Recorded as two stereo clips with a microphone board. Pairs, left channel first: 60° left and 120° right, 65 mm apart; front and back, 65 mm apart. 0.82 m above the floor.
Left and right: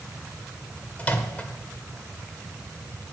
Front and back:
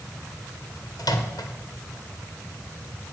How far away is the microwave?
About 2.0 m.